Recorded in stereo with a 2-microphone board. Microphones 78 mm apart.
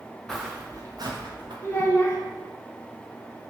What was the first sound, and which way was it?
Footsteps, 10° left (ahead or behind).